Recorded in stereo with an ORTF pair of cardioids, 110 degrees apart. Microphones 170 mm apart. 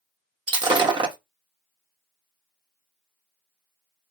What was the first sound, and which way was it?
Breaking glass, 25° right.